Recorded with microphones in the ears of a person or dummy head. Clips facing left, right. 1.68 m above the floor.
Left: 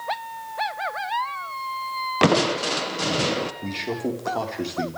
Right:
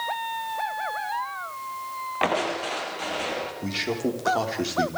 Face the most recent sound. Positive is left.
turn(degrees=-5)  # may be behind; listen again after turning